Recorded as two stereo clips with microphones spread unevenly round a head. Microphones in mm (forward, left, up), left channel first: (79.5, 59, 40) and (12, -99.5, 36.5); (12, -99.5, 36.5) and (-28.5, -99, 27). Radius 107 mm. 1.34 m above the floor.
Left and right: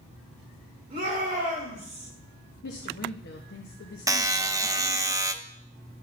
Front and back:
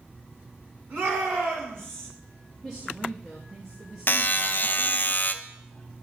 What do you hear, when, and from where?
0.9 s a shout: 175° right, 3.5 m; by 2.1 s 160° left, 3.5 m
2.6 s a woman speaking: 95° left, 1.0 m
4.1 s a buzzer: 40° right, 0.7 m